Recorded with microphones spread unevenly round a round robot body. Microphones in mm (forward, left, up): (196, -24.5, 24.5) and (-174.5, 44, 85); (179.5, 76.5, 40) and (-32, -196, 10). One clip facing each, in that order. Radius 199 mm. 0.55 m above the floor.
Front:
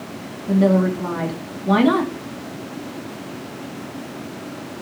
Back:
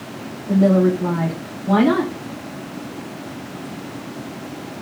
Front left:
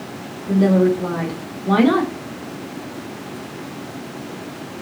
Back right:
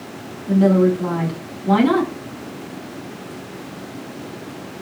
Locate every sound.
0.5 s a woman speaking: 55° right, 6.5 m